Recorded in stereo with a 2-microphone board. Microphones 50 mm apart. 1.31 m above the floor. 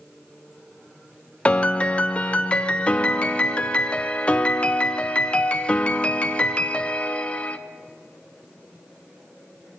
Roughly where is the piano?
Left.